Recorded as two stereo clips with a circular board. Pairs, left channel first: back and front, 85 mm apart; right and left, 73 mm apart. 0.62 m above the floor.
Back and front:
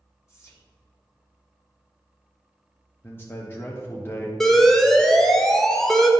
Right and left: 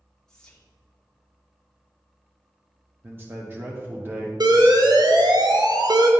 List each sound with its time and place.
0.3 s whispering: 170° right, 1.2 m
3.0 s a man speaking: 135° left, 0.7 m
4.4 s an alarm: 95° left, 0.8 m